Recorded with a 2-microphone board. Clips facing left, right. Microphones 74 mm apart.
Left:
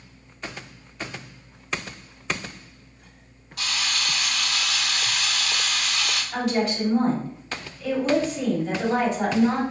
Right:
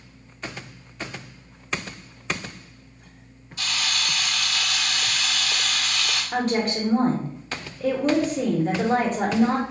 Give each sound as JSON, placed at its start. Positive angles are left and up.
{"t": 3.6, "sound": "a camera shutter", "side_deg": 65, "distance_m": 1.7}
{"t": 6.3, "sound": "a woman speaking", "side_deg": -45, "distance_m": 0.9}